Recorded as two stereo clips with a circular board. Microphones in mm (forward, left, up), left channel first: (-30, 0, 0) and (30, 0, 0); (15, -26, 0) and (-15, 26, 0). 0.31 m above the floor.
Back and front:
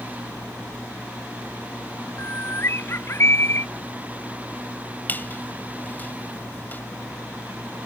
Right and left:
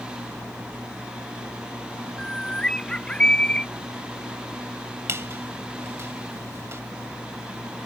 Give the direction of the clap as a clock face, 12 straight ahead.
I don't hear a clap.